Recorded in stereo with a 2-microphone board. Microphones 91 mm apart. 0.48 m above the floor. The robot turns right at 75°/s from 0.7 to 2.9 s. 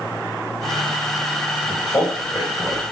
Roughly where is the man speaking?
Left.